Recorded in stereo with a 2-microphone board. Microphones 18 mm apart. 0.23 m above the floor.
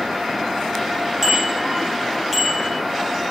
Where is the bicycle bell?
10° right (ahead or behind), 3.5 m; by 2.8 s 10° left (ahead or behind), 4.5 m.